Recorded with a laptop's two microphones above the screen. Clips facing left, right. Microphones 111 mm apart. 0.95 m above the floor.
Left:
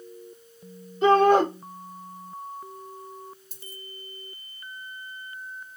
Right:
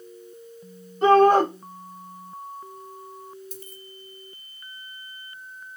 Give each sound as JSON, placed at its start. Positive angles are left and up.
{"t": 1.0, "sound": "a shout", "side_deg": -40, "distance_m": 1.2}
{"t": 3.5, "sound": "a dropped coin", "side_deg": -55, "distance_m": 2.0}